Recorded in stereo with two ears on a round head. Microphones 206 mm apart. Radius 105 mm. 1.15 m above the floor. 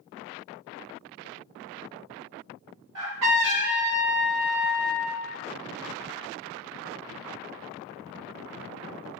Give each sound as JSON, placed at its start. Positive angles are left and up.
{"t": 3.0, "sound": "a trumpet", "side_deg": -85, "distance_m": 1.5}